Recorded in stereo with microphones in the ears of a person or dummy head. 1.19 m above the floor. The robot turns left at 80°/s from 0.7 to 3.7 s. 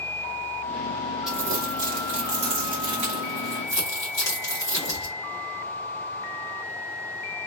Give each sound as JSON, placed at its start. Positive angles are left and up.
{"t": 1.3, "sound": "crumpling", "side_deg": -5, "distance_m": 1.4}